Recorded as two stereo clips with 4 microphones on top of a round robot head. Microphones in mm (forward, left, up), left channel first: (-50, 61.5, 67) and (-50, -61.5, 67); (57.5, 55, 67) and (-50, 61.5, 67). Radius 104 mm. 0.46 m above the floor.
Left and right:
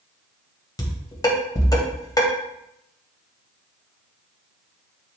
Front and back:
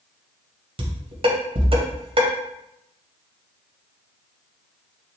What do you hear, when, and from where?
0.8 s dishes clattering: 150° left, 2 m